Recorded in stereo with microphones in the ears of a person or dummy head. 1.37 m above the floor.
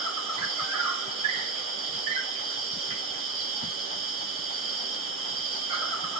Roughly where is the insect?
Right.